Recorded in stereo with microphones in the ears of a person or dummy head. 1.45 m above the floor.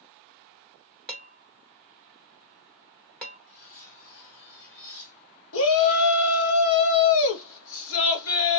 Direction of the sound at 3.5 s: 65° left (ahead or behind).